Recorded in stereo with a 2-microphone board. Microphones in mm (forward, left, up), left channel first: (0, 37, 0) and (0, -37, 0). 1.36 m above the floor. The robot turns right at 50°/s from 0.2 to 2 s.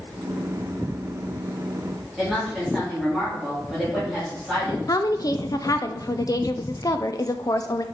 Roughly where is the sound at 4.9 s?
Left.